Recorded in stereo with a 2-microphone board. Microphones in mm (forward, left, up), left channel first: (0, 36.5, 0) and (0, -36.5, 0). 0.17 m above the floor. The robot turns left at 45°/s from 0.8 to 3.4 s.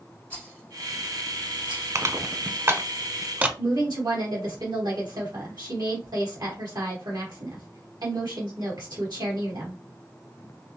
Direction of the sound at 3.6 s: 70° right (ahead or behind).